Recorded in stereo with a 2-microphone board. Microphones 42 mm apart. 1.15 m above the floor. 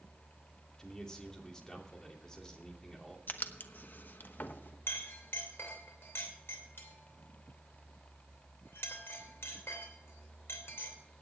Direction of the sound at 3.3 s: 50° left (ahead or behind).